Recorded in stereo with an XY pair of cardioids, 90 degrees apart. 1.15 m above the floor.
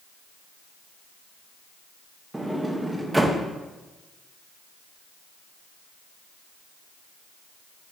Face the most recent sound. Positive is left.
turn(degrees=-10)